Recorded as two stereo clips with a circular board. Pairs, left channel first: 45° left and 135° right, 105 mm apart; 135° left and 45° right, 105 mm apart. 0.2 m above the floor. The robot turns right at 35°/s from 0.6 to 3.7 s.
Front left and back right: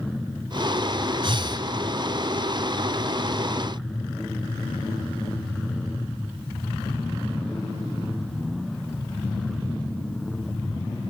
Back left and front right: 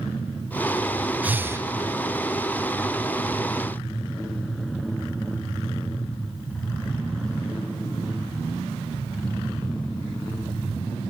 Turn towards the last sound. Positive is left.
turn(degrees=-30)